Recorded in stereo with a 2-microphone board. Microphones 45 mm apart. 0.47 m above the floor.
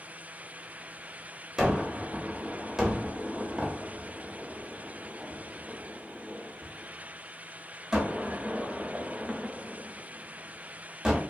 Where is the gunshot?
15° right (ahead or behind), 0.9 m.